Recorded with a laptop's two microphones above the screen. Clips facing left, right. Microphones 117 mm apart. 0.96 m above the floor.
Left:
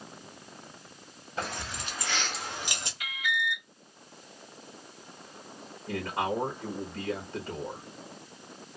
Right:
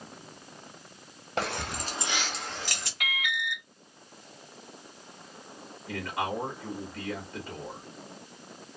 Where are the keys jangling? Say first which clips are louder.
Right 4 dB; 75° right (ahead or behind), 0.6 m; by 2.9 s 25° left (ahead or behind), 1.0 m.